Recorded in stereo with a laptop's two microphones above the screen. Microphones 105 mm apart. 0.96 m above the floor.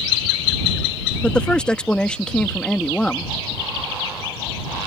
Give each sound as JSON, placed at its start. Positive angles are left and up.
{"t": 1.2, "sound": "a woman speaking", "side_deg": 10}